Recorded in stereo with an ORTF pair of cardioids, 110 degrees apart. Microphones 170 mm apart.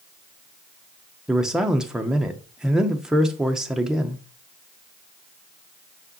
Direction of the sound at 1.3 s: 5° right.